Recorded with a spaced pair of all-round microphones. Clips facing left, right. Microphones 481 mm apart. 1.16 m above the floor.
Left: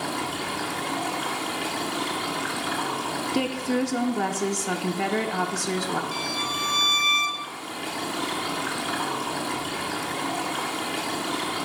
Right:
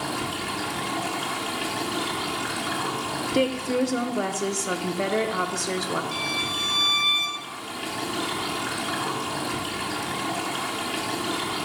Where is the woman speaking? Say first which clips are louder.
Right 2 dB; 10° left (ahead or behind), 0.7 m.